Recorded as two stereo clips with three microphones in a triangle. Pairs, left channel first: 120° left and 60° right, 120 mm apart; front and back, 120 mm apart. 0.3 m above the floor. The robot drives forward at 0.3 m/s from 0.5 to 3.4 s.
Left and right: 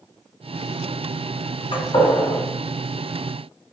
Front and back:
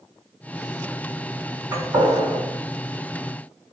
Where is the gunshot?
135° left, 1.7 m; by 2.4 s 140° left, 1.9 m.